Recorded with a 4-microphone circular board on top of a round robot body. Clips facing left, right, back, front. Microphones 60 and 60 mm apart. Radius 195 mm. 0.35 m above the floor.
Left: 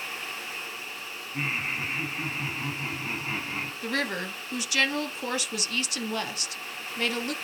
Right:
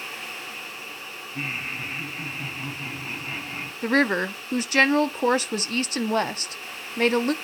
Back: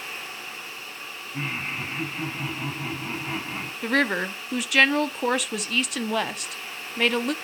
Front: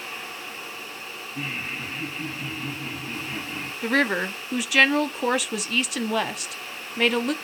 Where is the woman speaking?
90° right, 1.0 m.